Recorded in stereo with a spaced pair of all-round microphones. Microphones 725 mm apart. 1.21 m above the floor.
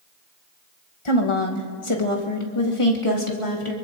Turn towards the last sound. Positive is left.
turn(degrees=45)  # may be behind; listen again after turning